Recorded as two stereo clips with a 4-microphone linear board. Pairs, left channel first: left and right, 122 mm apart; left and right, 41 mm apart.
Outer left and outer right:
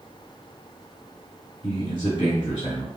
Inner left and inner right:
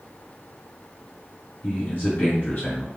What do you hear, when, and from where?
1.6 s a man speaking: 40° left (ahead or behind), 1.5 m